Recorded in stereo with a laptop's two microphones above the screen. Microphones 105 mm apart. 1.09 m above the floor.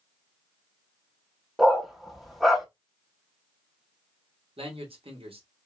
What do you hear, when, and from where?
1.6 s a dog barking: centre (ahead or behind), 0.7 m
4.6 s a man speaking: 65° right (ahead or behind), 1.3 m